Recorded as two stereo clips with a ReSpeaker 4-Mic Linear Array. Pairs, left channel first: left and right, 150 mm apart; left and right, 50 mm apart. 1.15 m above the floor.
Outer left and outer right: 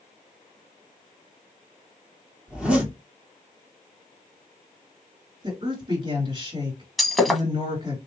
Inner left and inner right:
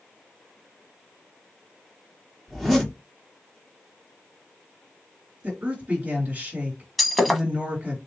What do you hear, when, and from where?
2.5 s a zipper: 10° right (ahead or behind), 2.5 m
5.4 s a woman speaking: 30° right (ahead or behind), 3.5 m
7.0 s breaking glass: centre (ahead or behind), 1.1 m